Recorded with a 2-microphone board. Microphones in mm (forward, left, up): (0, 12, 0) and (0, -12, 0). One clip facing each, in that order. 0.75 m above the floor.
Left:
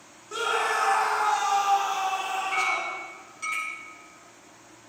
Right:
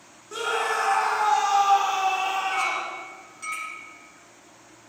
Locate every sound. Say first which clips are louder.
0.3 s a scream: even; 10° left (ahead or behind), 1.7 m; by 3.0 s 50° right (ahead or behind), 2.5 m
2.5 s a clink: even; 15° left (ahead or behind), 5.5 m